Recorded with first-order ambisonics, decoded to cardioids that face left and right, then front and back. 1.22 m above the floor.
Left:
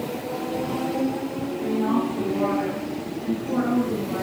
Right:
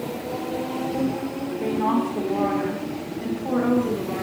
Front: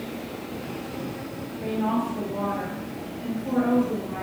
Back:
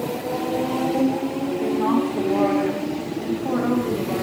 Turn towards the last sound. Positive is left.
turn(degrees=-145)